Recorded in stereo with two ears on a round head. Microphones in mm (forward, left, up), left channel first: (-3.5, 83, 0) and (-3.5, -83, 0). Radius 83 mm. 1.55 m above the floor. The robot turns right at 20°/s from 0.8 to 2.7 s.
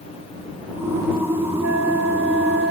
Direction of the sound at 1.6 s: 90° right.